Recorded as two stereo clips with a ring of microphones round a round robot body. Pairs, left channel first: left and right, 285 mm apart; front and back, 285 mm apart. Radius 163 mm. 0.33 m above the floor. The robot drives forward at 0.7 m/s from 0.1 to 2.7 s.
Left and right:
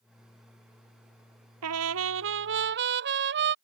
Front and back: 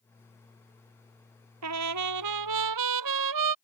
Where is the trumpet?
135° right; by 3.5 s 150° right.